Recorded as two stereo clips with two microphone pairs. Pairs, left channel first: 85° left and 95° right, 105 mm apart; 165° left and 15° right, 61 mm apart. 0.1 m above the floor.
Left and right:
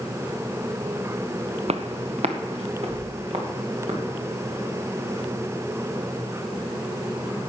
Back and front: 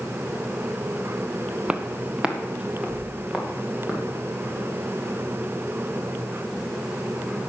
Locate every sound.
1.7 s footsteps: 85° right, 0.8 m; by 4.0 s 90° right, 4 m